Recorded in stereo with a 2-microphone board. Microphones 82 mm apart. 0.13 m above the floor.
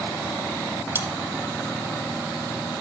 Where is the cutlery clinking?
30° right (ahead or behind), 0.7 m.